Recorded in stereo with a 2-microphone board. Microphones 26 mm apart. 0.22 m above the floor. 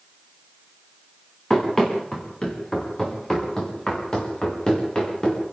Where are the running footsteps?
20° left (ahead or behind), 6 m; by 5.4 s 35° left (ahead or behind), 7.5 m.